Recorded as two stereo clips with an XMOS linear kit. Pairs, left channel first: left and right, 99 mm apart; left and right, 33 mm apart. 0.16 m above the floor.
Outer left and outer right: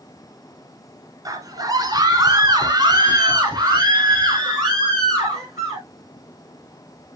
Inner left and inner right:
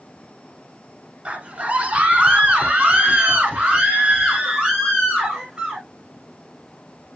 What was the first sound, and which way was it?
A scream, 35° right (ahead or behind).